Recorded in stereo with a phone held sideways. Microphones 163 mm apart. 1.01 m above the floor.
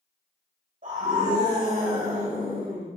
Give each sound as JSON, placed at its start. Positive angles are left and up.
{"t": 0.8, "sound": "a scream", "side_deg": -60, "distance_m": 3.0}